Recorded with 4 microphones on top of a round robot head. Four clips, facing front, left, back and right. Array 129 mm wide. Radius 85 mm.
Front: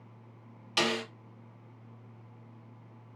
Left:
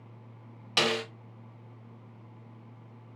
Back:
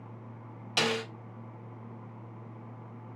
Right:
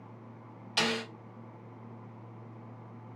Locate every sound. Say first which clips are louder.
0.8 s a snare drum: left 3 dB, even; 100° left, 1.6 m